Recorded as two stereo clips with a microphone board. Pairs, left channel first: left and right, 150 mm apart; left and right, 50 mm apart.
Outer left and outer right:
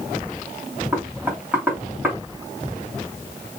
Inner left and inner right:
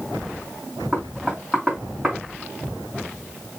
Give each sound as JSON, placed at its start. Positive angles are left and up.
{"t": 0.9, "sound": "knocking", "side_deg": -15, "distance_m": 2.5}